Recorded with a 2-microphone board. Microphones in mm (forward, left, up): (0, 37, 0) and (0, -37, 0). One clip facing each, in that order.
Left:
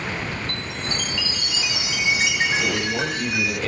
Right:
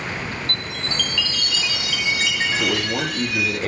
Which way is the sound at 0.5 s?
20° left (ahead or behind).